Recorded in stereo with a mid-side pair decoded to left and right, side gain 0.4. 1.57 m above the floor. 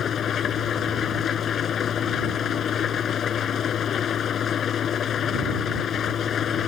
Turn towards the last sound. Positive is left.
turn(degrees=60)